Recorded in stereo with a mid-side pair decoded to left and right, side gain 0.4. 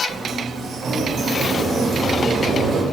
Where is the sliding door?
60° right, 1.6 m.